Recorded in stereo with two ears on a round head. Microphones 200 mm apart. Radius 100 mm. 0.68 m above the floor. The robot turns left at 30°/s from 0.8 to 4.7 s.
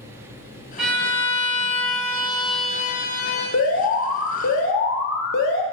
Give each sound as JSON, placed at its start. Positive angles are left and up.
{"t": 0.8, "sound": "a violin", "azimuth_deg": -175, "distance_m": 0.9}
{"t": 3.5, "sound": "an alarm", "azimuth_deg": 105, "distance_m": 0.5}